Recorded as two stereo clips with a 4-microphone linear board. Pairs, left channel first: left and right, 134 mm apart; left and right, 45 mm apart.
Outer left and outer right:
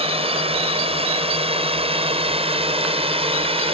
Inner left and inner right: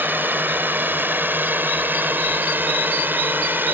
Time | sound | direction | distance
0.0 | a drone | 50° right (ahead or behind) | ?